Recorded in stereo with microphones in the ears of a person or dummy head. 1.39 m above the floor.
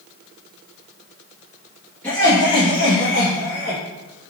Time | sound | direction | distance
2.0 | laughter | 5° left (ahead or behind) | 0.8 m